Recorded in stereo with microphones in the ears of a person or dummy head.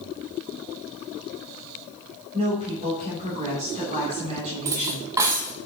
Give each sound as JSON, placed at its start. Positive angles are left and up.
{"t": 2.3, "sound": "a woman speaking", "side_deg": -30, "distance_m": 3.0}
{"t": 4.7, "sound": "cutlery clinking", "side_deg": -15, "distance_m": 0.5}